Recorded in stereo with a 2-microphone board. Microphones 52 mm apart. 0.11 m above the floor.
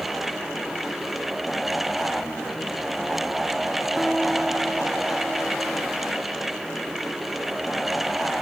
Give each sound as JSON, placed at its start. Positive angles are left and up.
{"t": 4.0, "sound": "a guitar", "side_deg": 0}